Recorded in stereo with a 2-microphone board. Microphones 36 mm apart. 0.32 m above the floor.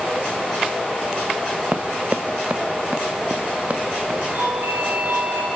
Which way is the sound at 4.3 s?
65° right (ahead or behind).